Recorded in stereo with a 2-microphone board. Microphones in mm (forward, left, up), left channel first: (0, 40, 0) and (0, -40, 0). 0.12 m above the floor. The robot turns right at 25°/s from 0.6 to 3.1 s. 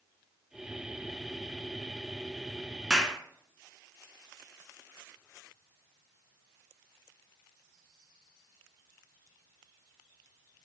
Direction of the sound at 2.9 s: 5° right (ahead or behind).